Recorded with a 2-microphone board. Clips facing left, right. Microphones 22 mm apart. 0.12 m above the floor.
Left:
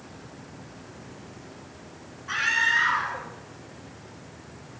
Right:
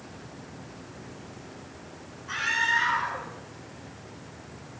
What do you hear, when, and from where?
2.3 s a scream: 25° left (ahead or behind), 1.3 m